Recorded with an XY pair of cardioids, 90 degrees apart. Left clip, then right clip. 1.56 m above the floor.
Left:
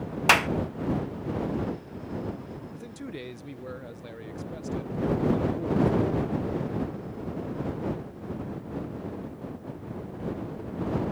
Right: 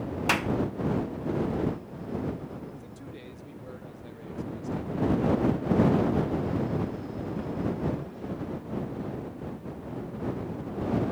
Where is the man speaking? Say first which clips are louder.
Left 5 dB; 65° left.